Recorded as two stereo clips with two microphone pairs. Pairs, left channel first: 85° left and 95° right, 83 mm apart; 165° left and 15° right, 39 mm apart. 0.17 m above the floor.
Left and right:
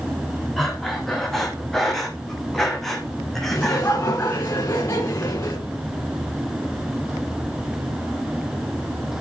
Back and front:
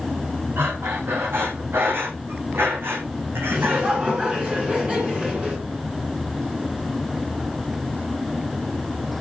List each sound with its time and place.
0.6 s breathing: straight ahead, 2.5 m
3.5 s laughter: 35° left, 2.5 m